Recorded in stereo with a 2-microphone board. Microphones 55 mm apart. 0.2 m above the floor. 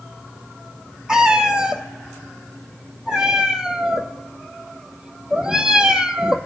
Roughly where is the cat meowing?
Centre.